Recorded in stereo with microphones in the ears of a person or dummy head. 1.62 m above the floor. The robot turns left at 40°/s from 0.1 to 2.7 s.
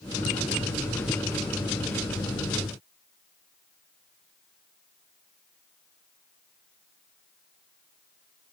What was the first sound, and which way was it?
Only background noise.